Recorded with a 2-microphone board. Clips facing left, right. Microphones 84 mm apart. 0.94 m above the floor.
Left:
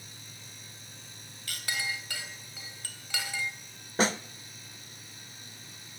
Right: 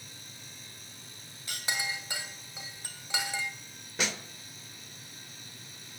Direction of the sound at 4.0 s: 35° left (ahead or behind).